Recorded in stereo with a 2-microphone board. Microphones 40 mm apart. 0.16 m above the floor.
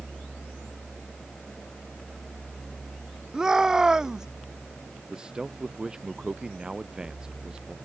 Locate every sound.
3.3 s a shout: 10° right (ahead or behind)
5.1 s a man speaking: 15° right (ahead or behind)